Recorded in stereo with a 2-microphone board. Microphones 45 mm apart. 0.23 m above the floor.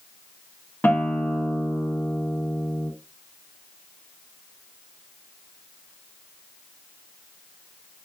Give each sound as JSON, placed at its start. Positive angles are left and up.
{"t": 0.8, "sound": "a guitar", "side_deg": 50, "distance_m": 0.8}